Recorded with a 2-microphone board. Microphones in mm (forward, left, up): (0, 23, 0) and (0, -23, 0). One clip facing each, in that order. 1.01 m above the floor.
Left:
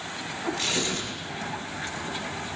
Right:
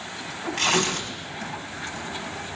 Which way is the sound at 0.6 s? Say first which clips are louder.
Right 10 dB; 60° right (ahead or behind).